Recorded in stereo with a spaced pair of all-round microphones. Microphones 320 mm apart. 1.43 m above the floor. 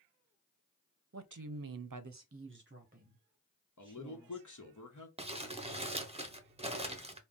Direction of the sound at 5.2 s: 20° right (ahead or behind).